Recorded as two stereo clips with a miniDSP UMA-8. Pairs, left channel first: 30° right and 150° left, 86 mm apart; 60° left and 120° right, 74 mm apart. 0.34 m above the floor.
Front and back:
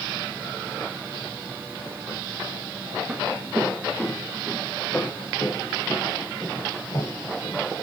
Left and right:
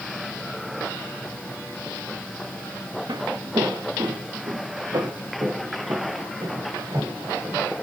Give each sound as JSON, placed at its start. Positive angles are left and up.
{"t": 3.1, "sound": "footsteps", "azimuth_deg": -135, "distance_m": 1.6}